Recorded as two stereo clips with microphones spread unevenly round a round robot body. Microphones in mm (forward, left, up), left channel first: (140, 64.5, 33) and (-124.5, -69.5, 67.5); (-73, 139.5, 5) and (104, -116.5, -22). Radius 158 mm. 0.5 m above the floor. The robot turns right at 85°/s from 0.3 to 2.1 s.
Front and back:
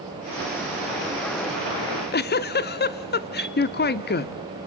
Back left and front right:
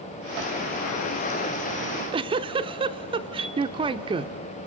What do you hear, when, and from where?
1.8 s a giggle: 20° right, 0.8 m; by 4.4 s 5° left, 0.8 m
3.4 s a chime: 85° right, 1.8 m